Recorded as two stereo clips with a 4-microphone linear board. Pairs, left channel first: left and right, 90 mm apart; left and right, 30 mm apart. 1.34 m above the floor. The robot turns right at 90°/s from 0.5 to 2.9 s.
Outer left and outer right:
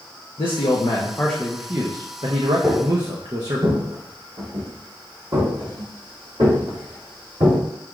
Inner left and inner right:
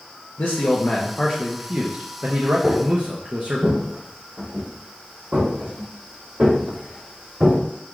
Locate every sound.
0.4 s a man speaking: 90° left, 0.7 m; by 3.6 s 55° right, 0.7 m
2.6 s footsteps: 15° right (ahead or behind), 1.6 m; by 7.6 s 65° right (ahead or behind), 5 m